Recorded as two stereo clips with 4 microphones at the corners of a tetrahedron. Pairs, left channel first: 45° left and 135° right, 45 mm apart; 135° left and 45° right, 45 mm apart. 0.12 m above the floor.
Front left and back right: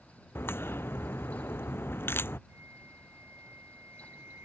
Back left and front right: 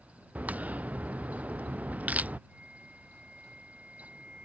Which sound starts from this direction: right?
A flute, at 2.5 s.